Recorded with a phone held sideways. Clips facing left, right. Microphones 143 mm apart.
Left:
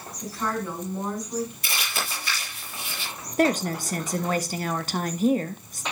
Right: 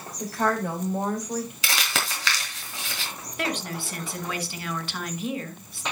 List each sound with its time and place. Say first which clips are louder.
0.2 s a woman speaking: right 4 dB; 60° right (ahead or behind), 4 m
1.6 s crumpling: right 2 dB; 80° right, 3 m
3.4 s a woman speaking: left 8 dB; 40° left (ahead or behind), 1.0 m